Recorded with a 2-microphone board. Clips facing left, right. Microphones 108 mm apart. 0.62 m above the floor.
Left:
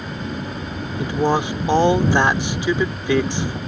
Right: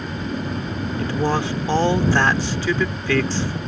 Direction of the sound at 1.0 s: 15° left (ahead or behind).